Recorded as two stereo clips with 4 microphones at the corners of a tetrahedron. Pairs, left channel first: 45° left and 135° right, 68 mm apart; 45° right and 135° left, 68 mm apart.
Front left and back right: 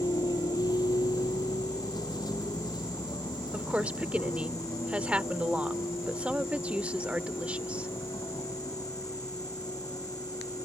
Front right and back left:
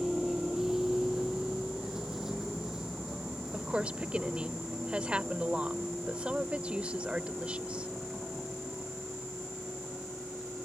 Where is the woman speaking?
175° right.